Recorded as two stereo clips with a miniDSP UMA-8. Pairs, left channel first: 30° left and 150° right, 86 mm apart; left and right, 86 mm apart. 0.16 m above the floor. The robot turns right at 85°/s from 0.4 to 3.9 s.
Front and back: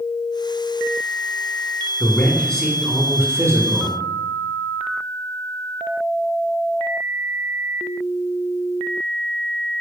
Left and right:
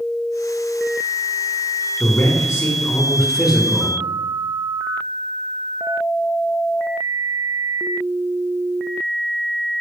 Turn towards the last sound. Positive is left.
turn(degrees=-135)